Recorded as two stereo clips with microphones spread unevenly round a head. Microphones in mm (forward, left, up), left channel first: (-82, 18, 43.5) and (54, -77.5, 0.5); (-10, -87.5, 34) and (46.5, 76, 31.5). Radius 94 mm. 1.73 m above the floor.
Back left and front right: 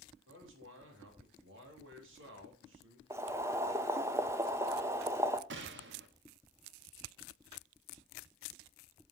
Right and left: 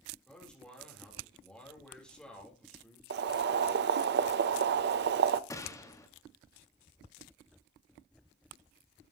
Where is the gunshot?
35° right, 1.4 m.